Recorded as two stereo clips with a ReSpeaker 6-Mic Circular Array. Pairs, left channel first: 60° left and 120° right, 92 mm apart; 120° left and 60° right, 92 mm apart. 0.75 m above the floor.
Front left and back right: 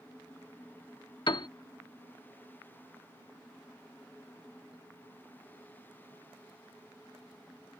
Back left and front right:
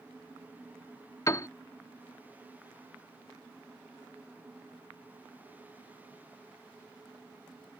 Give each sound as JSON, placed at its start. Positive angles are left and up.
{"t": 1.3, "sound": "a piano", "azimuth_deg": 75}